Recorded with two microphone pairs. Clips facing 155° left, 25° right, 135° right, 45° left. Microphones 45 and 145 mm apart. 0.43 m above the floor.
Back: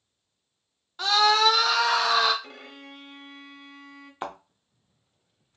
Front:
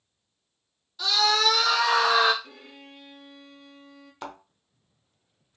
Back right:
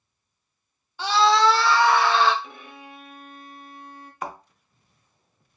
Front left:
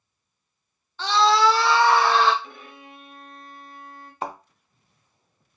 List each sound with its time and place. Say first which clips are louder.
1.0 s a scream: back 3 dB, even; 155° left, 0.9 m; by 2.3 s 35° left, 1.0 m
2.4 s a violin: back 3 dB, back right 1 dB; 135° left, 0.6 m
4.2 s a thud: back 4 dB, front left 2 dB; 95° left, 0.6 m